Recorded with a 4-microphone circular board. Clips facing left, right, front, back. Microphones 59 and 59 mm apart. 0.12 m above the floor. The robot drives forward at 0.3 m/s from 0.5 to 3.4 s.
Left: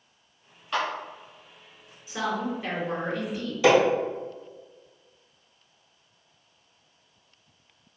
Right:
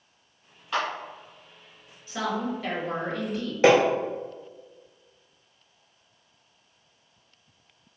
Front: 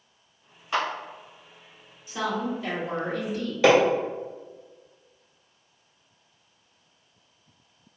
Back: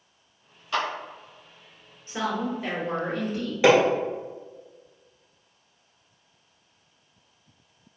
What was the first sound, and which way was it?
A clap, 5° right.